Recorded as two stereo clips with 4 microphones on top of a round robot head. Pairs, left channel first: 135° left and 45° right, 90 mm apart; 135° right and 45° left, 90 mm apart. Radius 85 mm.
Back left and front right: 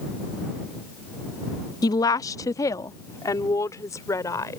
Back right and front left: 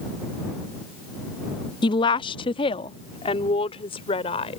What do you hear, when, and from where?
1.8 s a woman speaking: 175° right; by 4.6 s 165° right